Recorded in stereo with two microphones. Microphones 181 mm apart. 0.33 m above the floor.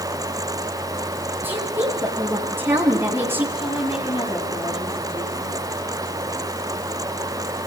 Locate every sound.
1.4 s a woman speaking: 10° right (ahead or behind), 7 m
3.5 s a woman speaking: 30° left (ahead or behind), 8.5 m